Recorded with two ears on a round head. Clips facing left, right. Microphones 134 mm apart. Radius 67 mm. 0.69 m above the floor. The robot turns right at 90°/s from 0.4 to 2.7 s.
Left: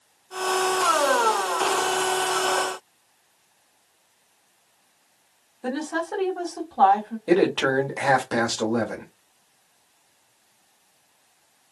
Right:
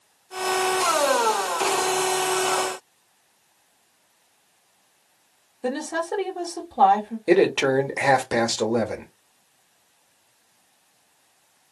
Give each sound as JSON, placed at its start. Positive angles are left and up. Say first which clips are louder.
{"t": 5.6, "sound": "a woman speaking", "louder": "right 1 dB", "side_deg": -20, "distance_m": 1.1}
{"t": 7.3, "sound": "a man speaking", "louder": "right 2 dB", "side_deg": -15, "distance_m": 1.0}